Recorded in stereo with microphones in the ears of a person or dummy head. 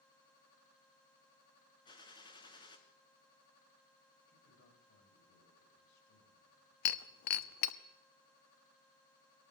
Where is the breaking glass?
60° left (ahead or behind), 0.9 m.